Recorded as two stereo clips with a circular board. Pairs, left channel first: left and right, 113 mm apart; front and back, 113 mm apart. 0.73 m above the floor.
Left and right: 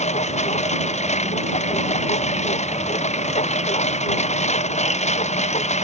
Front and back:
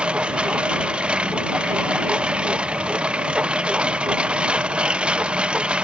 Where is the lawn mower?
100° left.